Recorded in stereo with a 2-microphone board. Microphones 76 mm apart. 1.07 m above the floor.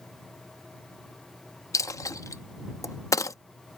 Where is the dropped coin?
45° left (ahead or behind).